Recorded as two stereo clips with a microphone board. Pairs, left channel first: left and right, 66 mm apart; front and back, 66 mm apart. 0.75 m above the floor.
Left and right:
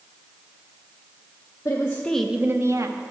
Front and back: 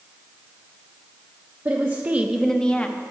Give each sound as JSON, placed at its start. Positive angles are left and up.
{"t": 1.6, "sound": "a woman speaking", "azimuth_deg": 130, "distance_m": 0.9}